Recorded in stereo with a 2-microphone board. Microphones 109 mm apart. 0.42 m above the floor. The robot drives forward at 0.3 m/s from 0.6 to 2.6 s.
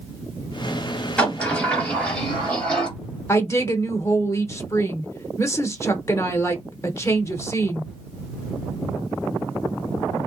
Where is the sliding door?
15° left (ahead or behind), 1.9 m; by 2.9 s 10° left (ahead or behind), 2 m.